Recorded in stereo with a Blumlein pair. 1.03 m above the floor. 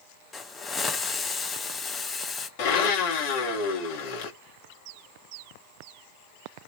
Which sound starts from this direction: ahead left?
A blender, at 2.6 s.